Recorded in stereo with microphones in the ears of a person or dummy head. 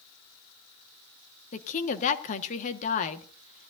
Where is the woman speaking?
35° left (ahead or behind), 1.1 m.